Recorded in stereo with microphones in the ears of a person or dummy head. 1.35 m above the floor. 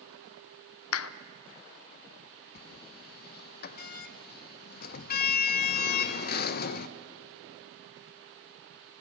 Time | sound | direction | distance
0.9 | a clap | 80° left | 0.6 m
2.5 | a sliding door | 50° left (ahead or behind) | 0.7 m